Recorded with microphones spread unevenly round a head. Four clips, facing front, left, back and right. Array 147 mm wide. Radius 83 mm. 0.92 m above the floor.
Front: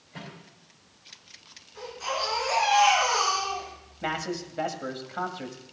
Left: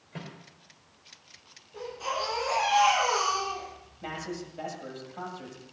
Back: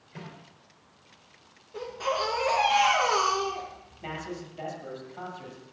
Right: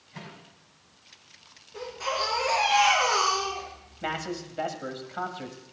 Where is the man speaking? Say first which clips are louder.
Right 4 dB, front 6 dB; 30° right, 1.8 m.